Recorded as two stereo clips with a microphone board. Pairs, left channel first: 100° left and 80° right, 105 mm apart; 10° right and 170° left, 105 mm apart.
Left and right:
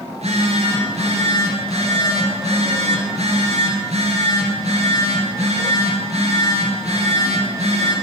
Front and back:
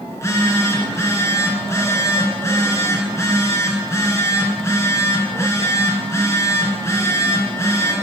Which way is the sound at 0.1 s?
75° right.